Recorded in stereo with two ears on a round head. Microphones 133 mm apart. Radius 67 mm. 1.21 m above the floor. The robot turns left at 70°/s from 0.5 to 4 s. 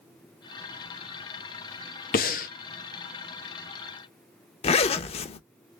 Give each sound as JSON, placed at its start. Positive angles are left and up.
{"t": 2.1, "sound": "breathing", "side_deg": 65, "distance_m": 0.7}
{"t": 4.6, "sound": "a zipper", "side_deg": 40, "distance_m": 0.5}